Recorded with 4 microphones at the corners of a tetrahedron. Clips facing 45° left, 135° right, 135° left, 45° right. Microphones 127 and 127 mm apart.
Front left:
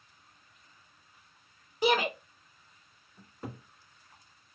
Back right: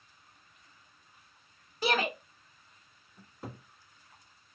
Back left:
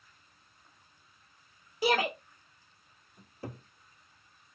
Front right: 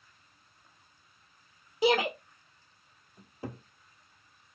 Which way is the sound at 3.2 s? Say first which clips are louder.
Front left 2 dB, front right 2 dB; 50° right.